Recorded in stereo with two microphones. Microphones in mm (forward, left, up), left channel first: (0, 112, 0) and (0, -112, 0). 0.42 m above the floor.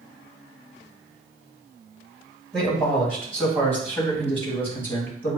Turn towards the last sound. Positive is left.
turn(degrees=10)  # may be behind; listen again after turning